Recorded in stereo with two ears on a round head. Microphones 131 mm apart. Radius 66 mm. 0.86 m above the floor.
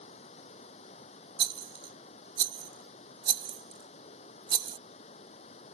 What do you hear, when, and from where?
0.0 s running water: 45° left (ahead or behind)
1.4 s a rattle: 30° right (ahead or behind)